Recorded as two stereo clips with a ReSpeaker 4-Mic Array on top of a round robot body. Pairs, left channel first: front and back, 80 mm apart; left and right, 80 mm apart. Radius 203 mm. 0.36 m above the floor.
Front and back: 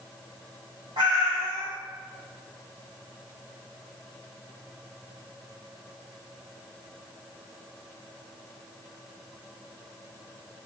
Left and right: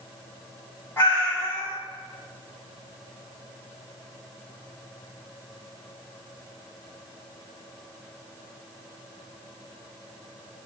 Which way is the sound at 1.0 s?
155° left.